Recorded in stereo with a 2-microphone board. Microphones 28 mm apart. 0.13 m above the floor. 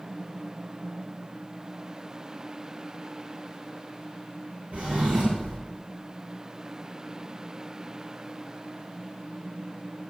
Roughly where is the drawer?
Right.